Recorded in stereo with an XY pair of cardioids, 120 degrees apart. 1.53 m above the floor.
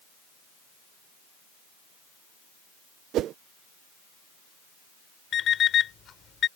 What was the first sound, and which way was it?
A whoosh, 65° right.